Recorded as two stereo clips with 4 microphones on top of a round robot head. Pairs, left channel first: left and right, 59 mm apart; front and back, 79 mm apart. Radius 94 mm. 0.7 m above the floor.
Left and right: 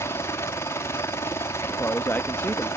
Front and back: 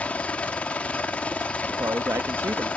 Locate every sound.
0.0 s a helicopter: 65° left
1.7 s a man speaking: 140° left